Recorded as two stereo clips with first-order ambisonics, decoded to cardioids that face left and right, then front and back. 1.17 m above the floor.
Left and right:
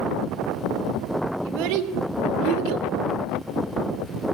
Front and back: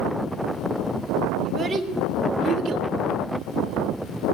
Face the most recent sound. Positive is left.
turn(degrees=-120)